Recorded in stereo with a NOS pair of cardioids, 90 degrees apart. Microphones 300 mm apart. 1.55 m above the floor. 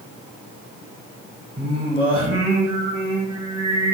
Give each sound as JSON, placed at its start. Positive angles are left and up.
{"t": 1.6, "sound": "singing", "azimuth_deg": -15, "distance_m": 1.3}